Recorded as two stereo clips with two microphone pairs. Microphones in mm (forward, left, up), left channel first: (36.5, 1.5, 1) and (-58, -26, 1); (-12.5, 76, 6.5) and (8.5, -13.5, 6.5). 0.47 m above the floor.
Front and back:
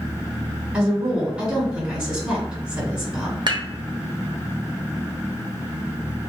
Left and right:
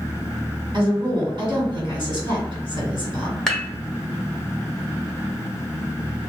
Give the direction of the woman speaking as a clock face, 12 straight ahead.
3 o'clock.